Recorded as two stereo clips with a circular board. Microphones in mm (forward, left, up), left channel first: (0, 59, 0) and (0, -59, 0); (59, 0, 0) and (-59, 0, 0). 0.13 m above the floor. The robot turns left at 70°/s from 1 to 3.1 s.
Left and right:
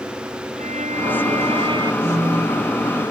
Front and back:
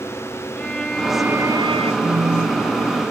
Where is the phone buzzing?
125° right; by 2.8 s 175° right.